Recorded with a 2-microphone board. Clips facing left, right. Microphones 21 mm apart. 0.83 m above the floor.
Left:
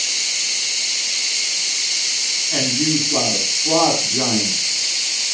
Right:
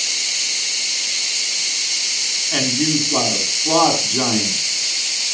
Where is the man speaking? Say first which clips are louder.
Right 1 dB; 30° right (ahead or behind), 5.5 m.